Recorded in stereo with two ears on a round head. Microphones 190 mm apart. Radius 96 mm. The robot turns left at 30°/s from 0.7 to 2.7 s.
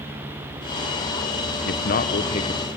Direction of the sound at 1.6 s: 45° left (ahead or behind).